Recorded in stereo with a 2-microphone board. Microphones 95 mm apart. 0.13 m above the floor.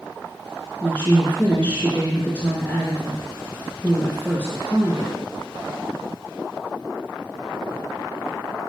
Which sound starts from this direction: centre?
A woman speaking, at 0.8 s.